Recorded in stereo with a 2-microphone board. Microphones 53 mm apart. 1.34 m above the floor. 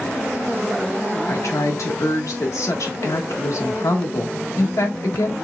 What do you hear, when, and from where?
1.3 s a woman speaking: 80° left, 1.4 m